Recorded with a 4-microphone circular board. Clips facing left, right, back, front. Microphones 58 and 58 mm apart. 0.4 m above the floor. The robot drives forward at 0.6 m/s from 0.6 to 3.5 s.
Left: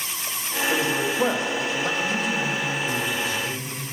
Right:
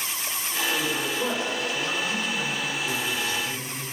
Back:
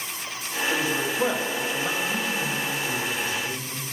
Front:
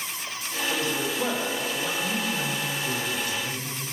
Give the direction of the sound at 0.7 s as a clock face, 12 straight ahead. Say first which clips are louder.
Left 5 dB, back 2 dB; 9 o'clock.